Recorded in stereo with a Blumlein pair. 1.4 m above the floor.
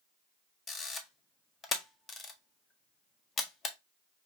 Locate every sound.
0.7 s a camera shutter: 20° left, 0.7 m